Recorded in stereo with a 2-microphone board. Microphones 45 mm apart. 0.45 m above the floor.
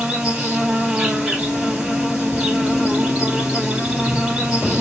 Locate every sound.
0.0 s an insect: 20° right (ahead or behind), 2.5 m